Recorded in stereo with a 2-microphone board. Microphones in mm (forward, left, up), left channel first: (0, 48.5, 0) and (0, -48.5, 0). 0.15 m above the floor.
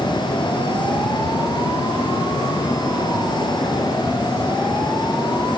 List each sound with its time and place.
Only background noise.